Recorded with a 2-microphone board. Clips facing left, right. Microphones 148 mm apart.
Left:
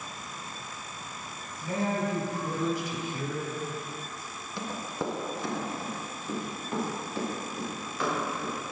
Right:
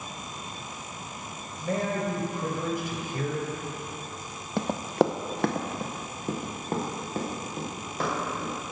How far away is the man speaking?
About 2.5 m.